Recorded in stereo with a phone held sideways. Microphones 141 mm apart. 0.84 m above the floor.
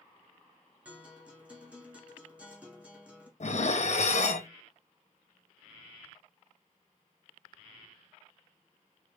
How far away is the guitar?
About 1.5 m.